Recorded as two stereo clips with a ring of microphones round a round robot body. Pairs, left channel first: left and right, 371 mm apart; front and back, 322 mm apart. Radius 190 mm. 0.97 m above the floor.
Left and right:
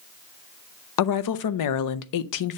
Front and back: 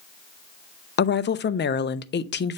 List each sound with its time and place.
1.0 s a woman speaking: 55° left, 0.6 m